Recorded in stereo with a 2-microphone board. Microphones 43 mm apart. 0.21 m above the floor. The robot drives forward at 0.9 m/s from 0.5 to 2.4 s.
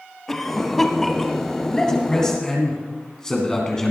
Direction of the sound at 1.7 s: 15° left (ahead or behind).